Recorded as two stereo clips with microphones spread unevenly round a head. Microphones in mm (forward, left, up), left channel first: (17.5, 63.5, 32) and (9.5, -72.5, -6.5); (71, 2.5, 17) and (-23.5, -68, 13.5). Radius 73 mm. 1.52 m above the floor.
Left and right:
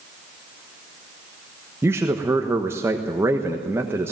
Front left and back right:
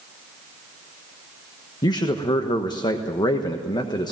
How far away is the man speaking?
About 1.2 m.